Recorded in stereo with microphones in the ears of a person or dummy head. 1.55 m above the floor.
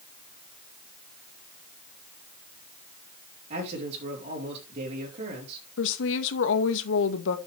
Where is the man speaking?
35° right (ahead or behind), 3.5 m.